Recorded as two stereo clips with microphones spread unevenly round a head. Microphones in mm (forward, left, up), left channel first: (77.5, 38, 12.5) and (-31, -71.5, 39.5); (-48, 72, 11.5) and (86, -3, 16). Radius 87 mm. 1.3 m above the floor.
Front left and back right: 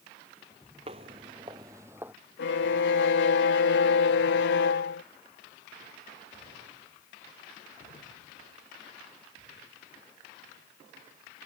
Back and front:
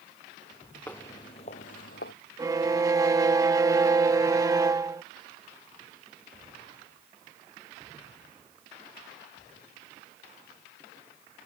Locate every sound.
0.9 s footsteps: 130° right; by 2.1 s 155° left
2.4 s a violin: 40° left